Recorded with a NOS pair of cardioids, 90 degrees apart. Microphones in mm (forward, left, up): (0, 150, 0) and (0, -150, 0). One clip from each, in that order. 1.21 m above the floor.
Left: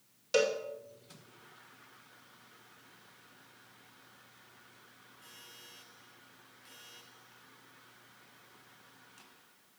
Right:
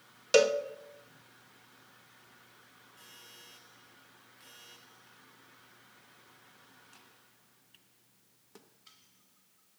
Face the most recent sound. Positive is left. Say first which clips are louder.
# right 5 dB
turn(degrees=-40)